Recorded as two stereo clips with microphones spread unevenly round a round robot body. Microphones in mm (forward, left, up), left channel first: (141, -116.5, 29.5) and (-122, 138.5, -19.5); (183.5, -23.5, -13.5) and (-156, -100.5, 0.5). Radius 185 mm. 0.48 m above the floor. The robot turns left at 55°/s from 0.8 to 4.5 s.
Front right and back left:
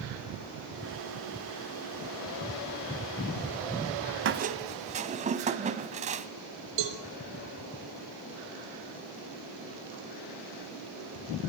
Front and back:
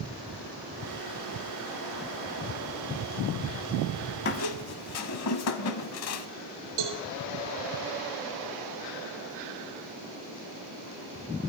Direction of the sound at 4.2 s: 75° left.